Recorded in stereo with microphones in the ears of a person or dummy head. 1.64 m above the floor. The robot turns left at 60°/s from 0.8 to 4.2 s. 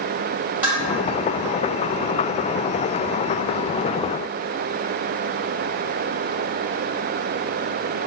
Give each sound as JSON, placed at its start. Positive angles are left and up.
{"t": 0.6, "sound": "dishes clattering", "side_deg": -5, "distance_m": 1.9}